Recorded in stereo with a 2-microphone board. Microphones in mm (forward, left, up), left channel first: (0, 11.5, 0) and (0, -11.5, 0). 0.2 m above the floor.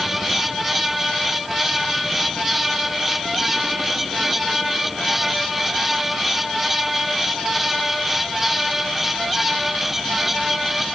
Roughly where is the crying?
I don't hear crying.